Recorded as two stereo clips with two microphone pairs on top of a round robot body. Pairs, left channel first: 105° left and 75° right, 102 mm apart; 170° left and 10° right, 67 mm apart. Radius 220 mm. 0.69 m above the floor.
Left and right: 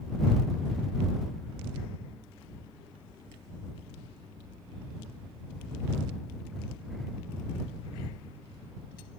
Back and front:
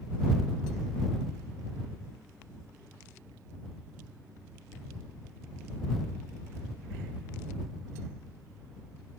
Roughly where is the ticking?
I don't hear ticking.